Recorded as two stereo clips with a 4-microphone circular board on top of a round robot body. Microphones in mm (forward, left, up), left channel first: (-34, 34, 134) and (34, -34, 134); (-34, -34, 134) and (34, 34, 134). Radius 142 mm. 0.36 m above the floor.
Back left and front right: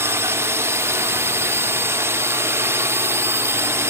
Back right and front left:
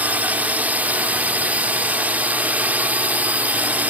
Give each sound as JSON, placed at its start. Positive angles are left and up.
{"t": 0.0, "sound": "a drone", "azimuth_deg": -15}